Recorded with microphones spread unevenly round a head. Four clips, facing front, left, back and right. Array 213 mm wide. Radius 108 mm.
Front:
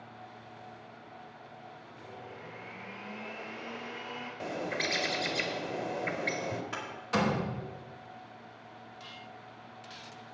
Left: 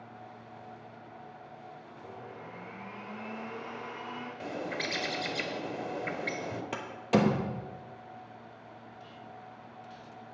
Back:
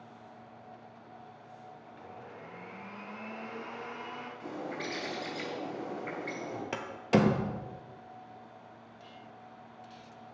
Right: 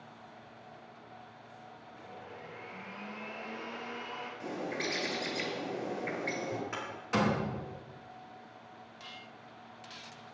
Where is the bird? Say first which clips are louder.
Left 1 dB, front 4 dB; 30° left, 1.9 m.